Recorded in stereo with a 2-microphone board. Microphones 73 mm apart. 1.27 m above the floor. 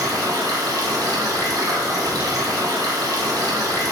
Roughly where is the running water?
Right.